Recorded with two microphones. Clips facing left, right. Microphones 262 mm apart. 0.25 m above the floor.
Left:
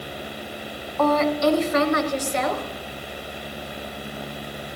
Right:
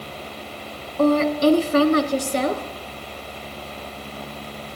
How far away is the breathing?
I don't hear breathing.